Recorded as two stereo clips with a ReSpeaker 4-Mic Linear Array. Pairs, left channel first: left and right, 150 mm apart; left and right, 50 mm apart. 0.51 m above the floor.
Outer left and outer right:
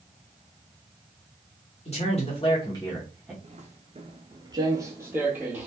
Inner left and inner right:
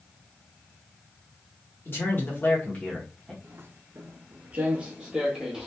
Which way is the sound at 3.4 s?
45° right (ahead or behind).